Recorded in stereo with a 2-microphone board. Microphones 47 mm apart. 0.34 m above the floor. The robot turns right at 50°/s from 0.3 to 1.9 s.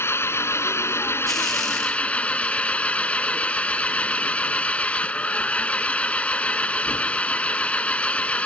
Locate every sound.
0.0 s an engine running: 70° left; by 8.5 s 150° left